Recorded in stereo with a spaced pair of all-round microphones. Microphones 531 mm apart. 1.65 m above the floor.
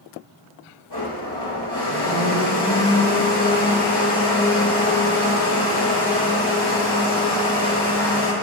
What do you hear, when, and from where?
0.9 s a blender: 60° left (ahead or behind), 1.9 m